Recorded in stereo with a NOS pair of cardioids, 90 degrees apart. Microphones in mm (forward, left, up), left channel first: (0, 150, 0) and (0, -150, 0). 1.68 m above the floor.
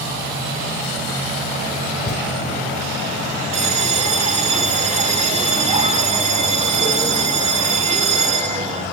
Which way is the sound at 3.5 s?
25° right.